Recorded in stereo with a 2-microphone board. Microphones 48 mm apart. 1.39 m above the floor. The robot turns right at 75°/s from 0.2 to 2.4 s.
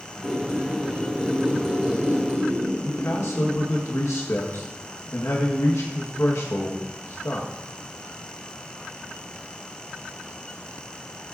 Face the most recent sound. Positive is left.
turn(degrees=70)  # may be behind; listen again after turning